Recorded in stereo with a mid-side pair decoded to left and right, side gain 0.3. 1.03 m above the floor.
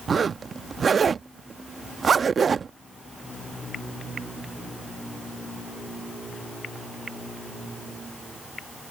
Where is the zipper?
60° right.